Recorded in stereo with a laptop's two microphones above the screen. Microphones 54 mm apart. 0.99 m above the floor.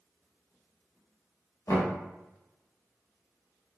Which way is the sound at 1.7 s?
65° left (ahead or behind).